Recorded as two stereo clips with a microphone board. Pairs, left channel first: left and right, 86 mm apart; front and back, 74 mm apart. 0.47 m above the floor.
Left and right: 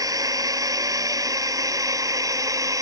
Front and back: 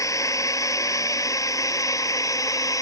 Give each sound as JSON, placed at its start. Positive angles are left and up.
{"t": 0.0, "sound": "a drone", "azimuth_deg": -40}